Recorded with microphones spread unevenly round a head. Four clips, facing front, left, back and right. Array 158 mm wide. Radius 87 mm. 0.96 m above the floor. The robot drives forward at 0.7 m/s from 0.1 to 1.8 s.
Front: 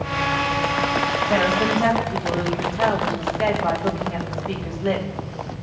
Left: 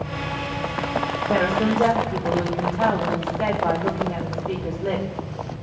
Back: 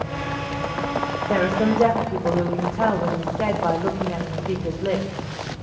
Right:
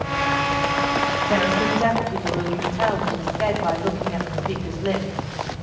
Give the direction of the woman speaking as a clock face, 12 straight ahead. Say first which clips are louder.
Left 2 dB, back 1 dB; 7 o'clock.